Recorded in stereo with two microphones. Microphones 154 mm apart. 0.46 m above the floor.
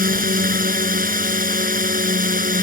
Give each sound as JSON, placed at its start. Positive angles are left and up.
{"t": 0.0, "sound": "a drone", "side_deg": -65}